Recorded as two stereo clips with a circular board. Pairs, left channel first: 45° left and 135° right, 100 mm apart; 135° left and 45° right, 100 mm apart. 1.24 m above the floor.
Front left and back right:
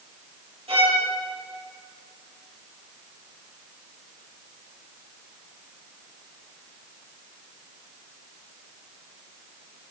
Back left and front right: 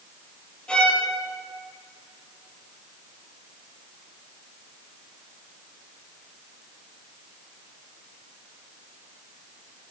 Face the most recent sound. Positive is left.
turn(degrees=-145)